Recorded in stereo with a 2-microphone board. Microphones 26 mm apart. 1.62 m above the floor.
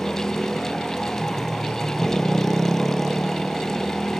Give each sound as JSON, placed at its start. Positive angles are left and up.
{"t": 0.0, "sound": "a motorcycle", "side_deg": 15}